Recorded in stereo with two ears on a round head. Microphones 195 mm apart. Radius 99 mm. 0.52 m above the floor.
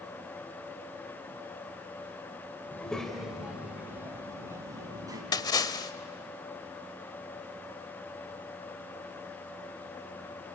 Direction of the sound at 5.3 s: 20° left (ahead or behind).